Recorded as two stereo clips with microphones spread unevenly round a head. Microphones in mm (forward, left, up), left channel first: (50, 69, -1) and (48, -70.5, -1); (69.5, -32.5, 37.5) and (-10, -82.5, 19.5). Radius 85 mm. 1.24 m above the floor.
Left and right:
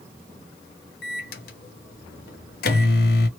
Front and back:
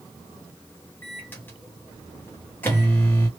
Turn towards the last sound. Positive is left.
turn(degrees=110)